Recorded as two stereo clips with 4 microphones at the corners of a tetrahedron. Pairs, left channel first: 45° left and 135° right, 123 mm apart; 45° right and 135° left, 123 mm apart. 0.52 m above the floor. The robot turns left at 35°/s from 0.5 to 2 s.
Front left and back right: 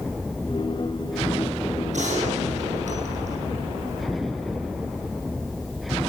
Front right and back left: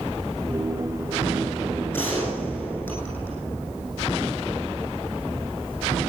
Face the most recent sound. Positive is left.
turn(degrees=-120)